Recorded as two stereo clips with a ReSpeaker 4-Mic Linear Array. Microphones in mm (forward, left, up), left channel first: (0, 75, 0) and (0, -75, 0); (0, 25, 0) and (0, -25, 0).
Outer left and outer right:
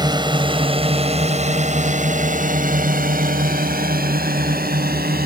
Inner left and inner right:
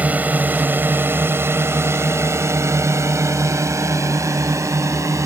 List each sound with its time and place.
0.0 s a drone: 30° right (ahead or behind); by 5.3 s 85° right